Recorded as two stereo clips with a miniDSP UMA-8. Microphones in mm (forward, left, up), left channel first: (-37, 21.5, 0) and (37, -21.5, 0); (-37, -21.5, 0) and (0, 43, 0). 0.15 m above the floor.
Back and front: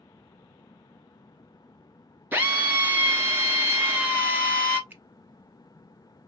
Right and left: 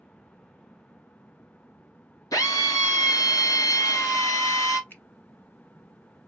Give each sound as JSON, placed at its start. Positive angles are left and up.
{"t": 2.3, "sound": "a drill", "azimuth_deg": -95, "distance_m": 1.4}
{"t": 4.9, "sound": "a finger snap", "azimuth_deg": -80, "distance_m": 1.1}